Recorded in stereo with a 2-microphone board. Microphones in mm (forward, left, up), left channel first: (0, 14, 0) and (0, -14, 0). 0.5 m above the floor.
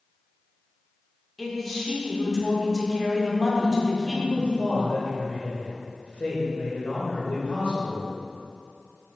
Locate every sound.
1.4 s a man speaking: centre (ahead or behind), 1.2 m
4.0 s a man speaking: 55° left (ahead or behind), 1.9 m